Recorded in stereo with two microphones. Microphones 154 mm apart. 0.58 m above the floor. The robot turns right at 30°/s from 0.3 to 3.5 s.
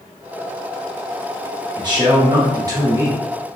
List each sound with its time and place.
1.8 s a man speaking: 85° right, 0.7 m; by 3.2 s 45° right, 0.7 m